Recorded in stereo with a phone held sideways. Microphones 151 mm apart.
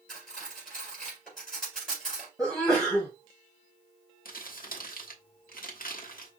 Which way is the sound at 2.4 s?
5° left (ahead or behind).